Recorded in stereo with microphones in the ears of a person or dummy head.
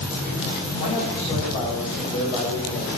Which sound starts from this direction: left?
A man speaking, at 0.8 s.